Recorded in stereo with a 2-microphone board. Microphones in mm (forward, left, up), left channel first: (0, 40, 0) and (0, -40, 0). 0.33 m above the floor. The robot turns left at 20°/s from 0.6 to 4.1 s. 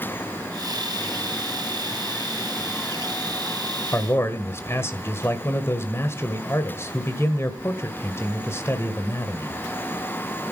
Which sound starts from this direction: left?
A man speaking, at 3.9 s.